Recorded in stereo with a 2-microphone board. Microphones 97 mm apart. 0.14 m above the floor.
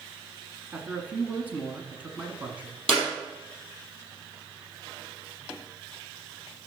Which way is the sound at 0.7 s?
15° right (ahead or behind).